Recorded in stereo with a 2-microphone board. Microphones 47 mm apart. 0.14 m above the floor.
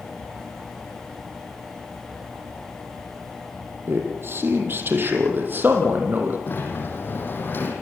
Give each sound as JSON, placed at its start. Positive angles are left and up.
{"t": 3.9, "sound": "a man speaking", "side_deg": -55, "distance_m": 4.0}
{"t": 6.5, "sound": "a sliding door", "side_deg": 45, "distance_m": 4.5}